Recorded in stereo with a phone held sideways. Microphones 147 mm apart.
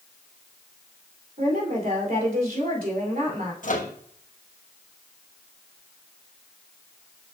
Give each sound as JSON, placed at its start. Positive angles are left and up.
{"t": 1.4, "sound": "a woman speaking", "side_deg": -80, "distance_m": 2.5}
{"t": 3.6, "sound": "a microwave", "side_deg": 65, "distance_m": 1.0}